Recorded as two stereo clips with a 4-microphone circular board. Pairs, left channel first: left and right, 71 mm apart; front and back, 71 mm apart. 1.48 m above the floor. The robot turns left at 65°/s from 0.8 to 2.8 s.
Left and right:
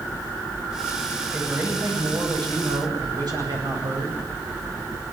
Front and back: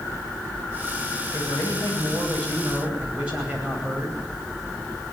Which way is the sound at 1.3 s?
10° right.